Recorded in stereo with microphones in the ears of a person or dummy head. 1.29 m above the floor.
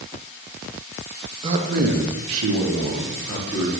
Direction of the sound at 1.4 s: 30° right (ahead or behind).